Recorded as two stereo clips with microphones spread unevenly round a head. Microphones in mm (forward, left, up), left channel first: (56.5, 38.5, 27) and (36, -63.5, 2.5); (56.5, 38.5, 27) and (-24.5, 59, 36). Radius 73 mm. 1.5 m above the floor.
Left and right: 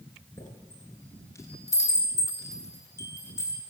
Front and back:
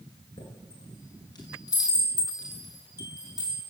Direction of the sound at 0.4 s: 20° left.